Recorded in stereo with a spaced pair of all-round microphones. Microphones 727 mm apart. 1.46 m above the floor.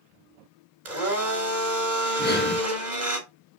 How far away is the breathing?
About 3 m.